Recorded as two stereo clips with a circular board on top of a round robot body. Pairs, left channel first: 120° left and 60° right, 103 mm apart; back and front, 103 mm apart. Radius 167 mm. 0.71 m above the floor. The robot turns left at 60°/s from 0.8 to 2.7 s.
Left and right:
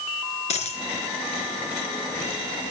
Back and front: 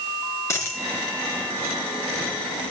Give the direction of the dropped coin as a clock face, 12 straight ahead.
8 o'clock.